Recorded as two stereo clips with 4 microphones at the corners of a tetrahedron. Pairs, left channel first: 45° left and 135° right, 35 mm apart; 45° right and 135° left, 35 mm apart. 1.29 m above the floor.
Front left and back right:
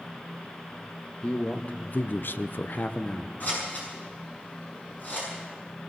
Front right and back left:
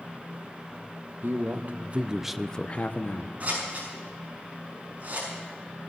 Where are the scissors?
85° left, 6.5 m.